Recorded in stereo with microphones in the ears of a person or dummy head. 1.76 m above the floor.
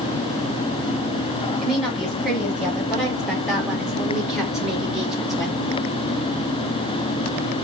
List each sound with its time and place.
1.6 s a woman speaking: 5° right (ahead or behind), 8 m